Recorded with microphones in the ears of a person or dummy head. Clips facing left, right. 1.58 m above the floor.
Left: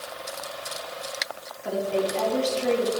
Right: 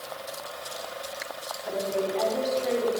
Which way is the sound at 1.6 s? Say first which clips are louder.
Left 3 dB; 75° left (ahead or behind).